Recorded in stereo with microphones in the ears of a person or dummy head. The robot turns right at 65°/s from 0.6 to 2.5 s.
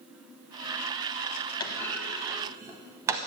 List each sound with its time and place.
1.6 s a clunk: 20° left (ahead or behind), 0.9 m; by 3.2 s 20° right (ahead or behind), 0.9 m